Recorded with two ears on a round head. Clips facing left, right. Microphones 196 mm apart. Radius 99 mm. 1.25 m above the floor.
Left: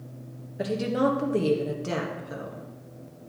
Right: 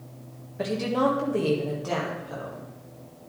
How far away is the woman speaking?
About 1.4 m.